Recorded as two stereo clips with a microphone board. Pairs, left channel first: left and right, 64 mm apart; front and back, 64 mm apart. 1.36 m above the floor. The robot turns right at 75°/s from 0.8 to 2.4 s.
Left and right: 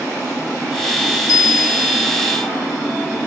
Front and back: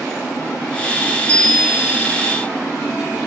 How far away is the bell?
About 5.5 m.